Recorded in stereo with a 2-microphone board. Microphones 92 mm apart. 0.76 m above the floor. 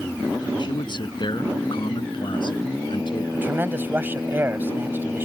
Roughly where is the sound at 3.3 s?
Right.